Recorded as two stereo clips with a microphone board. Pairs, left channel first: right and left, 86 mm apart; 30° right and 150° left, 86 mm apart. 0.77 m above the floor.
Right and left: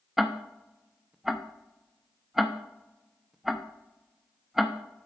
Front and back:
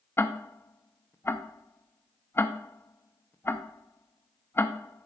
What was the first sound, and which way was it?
Ticking, 5° left.